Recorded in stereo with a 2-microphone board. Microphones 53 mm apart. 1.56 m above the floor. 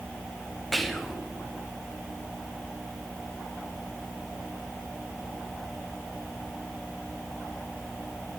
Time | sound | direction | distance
0.7 | whispering | 5° left (ahead or behind) | 0.6 m